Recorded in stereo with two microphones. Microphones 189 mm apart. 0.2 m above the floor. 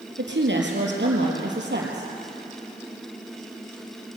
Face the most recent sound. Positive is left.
turn(degrees=-65)  # may be behind; listen again after turning